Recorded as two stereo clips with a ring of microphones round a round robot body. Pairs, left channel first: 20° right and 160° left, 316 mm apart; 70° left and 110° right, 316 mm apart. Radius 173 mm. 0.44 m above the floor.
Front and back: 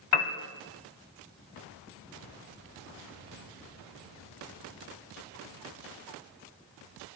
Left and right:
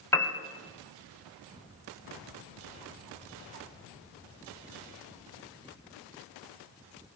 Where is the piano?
15° right, 3 m.